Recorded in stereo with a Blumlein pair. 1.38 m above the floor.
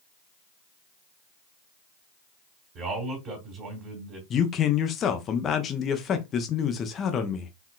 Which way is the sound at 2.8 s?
35° right.